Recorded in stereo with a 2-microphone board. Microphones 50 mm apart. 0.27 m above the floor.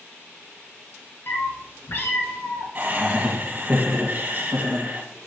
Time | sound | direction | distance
1.3 | a cat meowing | 45° left (ahead or behind) | 1.3 m
2.8 | laughter | 30° right (ahead or behind) | 2 m